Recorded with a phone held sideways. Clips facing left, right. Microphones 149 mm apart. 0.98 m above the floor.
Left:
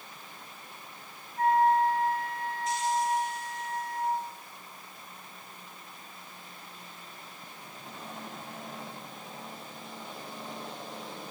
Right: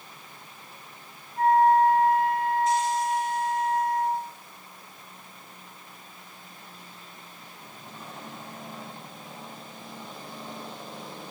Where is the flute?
55° right (ahead or behind), 3 m.